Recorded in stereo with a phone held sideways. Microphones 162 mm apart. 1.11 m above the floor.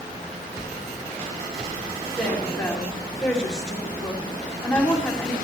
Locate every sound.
2.1 s a woman speaking: 5° left (ahead or behind), 3 m